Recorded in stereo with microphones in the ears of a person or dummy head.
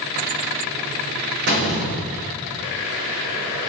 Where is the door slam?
65° right (ahead or behind), 6.5 m.